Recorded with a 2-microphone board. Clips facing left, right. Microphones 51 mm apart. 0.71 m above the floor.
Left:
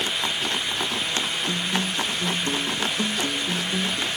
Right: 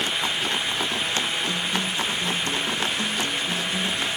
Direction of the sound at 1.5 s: 30° left (ahead or behind).